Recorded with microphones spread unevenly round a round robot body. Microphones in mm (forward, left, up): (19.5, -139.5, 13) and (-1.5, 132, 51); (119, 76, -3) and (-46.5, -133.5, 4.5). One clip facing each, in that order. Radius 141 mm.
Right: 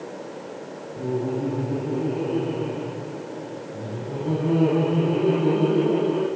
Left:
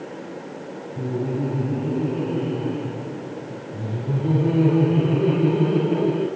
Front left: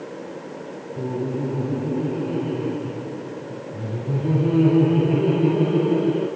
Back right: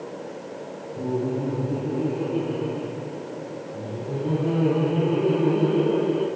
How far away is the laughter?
About 5.5 m.